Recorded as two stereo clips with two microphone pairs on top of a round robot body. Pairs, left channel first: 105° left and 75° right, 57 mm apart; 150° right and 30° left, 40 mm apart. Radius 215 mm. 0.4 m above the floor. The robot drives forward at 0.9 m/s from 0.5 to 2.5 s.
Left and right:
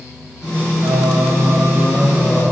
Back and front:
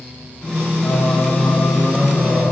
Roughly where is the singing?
Right.